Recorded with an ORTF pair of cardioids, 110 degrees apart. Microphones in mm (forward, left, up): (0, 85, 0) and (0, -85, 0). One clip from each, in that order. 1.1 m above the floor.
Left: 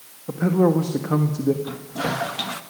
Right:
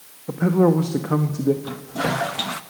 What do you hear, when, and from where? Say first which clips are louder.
0.3 s a man speaking: right 1 dB; 10° right, 1.4 m
1.6 s a toilet flushing: right 2 dB; 15° right, 1.0 m